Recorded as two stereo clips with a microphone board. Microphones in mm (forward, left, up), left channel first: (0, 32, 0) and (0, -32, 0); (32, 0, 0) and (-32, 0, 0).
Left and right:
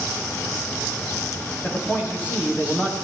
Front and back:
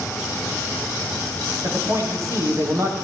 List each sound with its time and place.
1.6 s a man speaking: 150° left, 9 m